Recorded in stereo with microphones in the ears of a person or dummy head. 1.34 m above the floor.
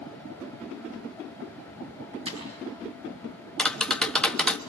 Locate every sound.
2.2 s breaking glass: 30° right (ahead or behind), 7.5 m
3.6 s tapping: 5° left (ahead or behind), 1.1 m